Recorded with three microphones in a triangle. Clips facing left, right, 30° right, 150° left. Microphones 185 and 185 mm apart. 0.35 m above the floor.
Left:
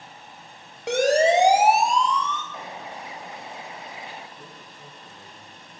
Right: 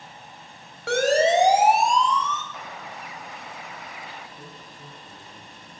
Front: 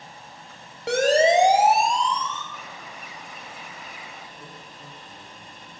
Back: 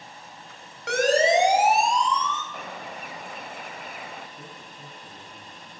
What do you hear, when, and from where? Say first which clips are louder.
0.9 s a siren: left 1 dB, front 2 dB; 20° left, 2.5 m; by 2.4 s 5° right, 2 m
2.5 s a bird: left 2 dB, back 4 dB; 145° left, 0.8 m
4.4 s a man speaking: right 1 dB, even; 165° right, 3.5 m